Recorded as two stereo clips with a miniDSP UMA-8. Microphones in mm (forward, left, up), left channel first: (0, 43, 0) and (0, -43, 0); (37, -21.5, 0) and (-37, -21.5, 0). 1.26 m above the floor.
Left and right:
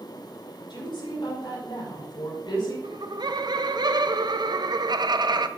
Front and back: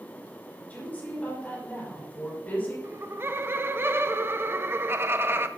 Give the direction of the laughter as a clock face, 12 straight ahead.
4 o'clock.